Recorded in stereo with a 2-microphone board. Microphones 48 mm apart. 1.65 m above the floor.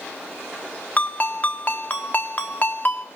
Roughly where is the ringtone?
Left.